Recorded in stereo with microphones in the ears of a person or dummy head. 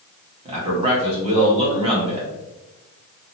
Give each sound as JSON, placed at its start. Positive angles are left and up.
{"t": 0.5, "sound": "a man speaking", "side_deg": -35, "distance_m": 1.3}